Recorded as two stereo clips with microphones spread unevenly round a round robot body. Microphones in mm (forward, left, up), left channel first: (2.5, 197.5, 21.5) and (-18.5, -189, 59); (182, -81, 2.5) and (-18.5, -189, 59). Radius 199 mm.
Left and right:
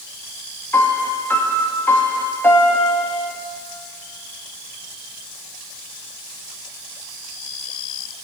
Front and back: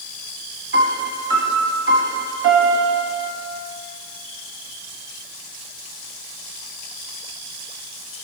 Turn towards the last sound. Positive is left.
turn(degrees=175)